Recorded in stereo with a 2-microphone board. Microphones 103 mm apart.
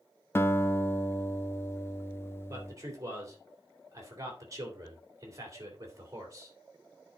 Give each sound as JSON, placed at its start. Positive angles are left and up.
{"t": 0.3, "sound": "a guitar", "side_deg": 25, "distance_m": 0.6}
{"t": 2.5, "sound": "a man speaking", "side_deg": -30, "distance_m": 3.0}